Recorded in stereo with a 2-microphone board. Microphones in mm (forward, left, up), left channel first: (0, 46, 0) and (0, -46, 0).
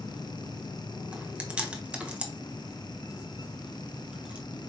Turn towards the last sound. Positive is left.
turn(degrees=-10)  # may be behind; listen again after turning